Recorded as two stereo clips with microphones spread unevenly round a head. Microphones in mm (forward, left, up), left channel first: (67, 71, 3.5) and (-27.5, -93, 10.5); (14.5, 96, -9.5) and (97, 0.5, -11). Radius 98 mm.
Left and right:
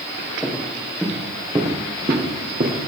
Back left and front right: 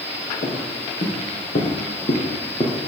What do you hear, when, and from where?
0.4 s footsteps: 150° left, 4.5 m; by 2.9 s 160° right, 3 m